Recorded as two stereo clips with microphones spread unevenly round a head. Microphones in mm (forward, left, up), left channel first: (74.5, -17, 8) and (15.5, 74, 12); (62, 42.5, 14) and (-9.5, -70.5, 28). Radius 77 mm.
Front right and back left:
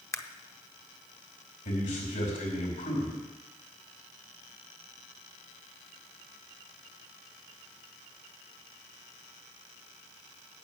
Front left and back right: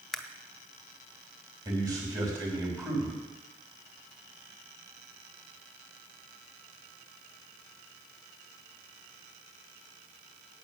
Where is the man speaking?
60° right, 4.5 m.